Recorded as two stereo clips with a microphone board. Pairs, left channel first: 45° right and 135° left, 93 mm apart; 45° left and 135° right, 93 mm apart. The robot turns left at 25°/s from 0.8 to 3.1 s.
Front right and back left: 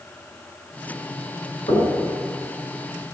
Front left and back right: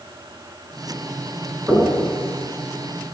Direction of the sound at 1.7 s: 60° right.